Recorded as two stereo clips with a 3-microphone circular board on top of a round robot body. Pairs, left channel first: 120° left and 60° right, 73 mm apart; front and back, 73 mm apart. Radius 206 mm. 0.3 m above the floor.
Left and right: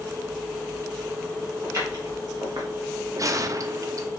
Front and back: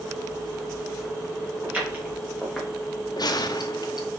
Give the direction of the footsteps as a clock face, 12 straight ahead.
4 o'clock.